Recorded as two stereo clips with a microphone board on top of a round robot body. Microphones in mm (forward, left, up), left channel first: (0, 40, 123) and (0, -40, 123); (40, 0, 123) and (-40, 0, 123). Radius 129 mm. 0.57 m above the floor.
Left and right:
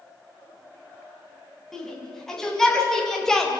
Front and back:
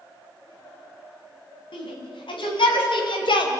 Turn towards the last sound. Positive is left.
turn(degrees=5)